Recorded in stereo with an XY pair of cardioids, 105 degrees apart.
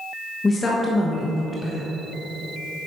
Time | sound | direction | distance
0.4 | a woman speaking | 25° left | 1.4 m